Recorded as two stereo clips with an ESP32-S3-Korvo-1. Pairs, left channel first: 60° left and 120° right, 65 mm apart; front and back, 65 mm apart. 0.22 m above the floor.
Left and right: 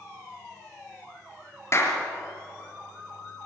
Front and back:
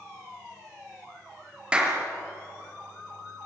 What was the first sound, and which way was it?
A clap, 105° left.